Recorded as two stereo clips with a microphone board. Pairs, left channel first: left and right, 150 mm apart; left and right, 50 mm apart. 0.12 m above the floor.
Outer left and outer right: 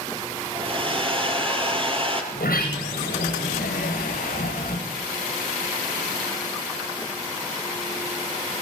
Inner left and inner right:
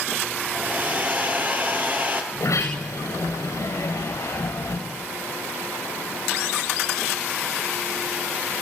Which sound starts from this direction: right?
A hair dryer, at 0.6 s.